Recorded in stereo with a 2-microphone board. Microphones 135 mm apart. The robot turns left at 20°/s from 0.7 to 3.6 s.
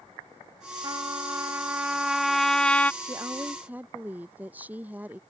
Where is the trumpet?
150° right; by 2.9 s 170° left.